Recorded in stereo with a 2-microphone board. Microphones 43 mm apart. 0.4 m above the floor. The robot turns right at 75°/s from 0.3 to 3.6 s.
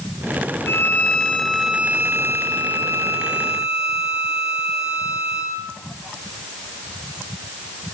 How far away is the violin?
About 9 m.